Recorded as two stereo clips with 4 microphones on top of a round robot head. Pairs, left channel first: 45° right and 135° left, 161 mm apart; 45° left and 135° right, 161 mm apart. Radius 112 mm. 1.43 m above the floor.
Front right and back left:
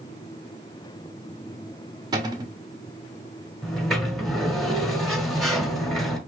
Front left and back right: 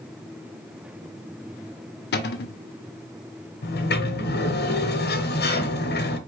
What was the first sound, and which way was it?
A cupboard door, 65° left.